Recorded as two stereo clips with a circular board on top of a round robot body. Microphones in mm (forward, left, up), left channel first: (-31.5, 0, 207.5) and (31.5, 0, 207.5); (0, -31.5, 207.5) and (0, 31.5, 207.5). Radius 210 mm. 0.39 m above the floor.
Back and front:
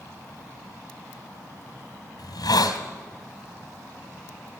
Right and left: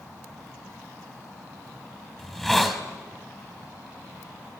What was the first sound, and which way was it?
A hiss, 175° right.